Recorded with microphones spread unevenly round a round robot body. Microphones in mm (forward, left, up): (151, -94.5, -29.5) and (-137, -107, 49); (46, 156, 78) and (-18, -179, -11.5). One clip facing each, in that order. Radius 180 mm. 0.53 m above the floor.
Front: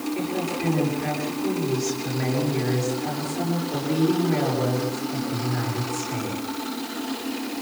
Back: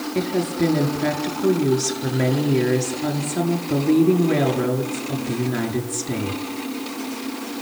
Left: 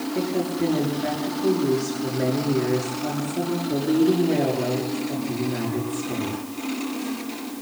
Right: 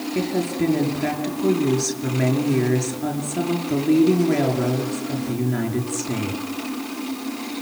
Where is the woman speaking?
160° right, 7 m.